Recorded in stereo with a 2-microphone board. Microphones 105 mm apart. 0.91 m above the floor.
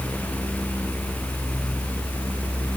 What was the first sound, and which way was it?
Only background noise.